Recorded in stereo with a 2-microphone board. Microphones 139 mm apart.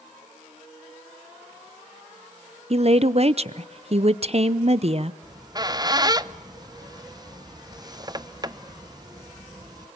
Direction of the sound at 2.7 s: 50° right (ahead or behind).